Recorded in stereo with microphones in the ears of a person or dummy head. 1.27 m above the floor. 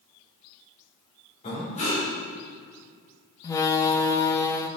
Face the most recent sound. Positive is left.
turn(degrees=15)  # may be behind; listen again after turning